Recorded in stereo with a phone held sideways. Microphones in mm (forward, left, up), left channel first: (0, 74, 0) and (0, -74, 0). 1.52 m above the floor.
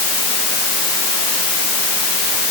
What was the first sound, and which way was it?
Only background noise.